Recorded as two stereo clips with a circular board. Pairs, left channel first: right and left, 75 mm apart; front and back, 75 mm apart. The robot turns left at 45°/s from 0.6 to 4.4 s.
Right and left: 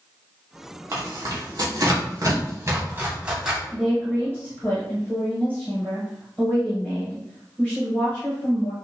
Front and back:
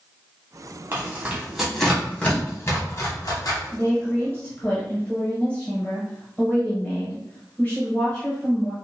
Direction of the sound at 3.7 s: 15° right.